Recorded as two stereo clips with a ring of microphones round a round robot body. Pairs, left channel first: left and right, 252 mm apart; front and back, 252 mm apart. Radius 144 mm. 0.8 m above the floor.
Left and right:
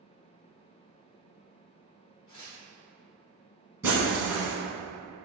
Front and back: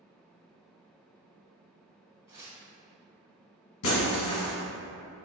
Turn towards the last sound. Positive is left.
turn(degrees=-10)